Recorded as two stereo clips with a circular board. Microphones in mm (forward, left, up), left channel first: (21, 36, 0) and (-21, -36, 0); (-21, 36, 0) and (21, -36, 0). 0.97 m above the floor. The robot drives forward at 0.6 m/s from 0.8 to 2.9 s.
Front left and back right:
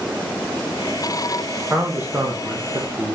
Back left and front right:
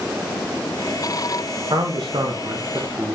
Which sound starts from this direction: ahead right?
A man speaking, at 1.7 s.